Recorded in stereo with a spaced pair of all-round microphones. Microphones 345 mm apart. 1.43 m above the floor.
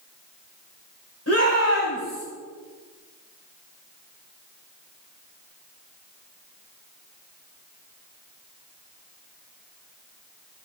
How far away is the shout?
About 6 m.